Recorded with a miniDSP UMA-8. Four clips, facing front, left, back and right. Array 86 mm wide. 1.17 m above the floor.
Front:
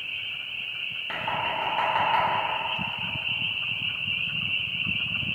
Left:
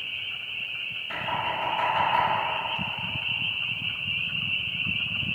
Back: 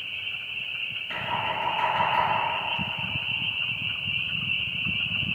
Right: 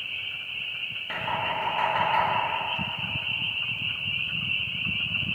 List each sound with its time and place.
1.1 s knocking: 30° right, 1.1 m